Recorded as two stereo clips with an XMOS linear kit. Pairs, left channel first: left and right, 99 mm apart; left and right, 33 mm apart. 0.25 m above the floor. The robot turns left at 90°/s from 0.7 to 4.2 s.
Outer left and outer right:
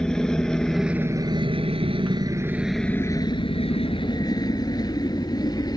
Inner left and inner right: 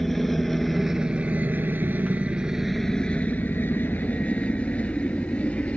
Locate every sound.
0.0 s a helicopter: 5° left (ahead or behind); by 5.8 s 40° left (ahead or behind)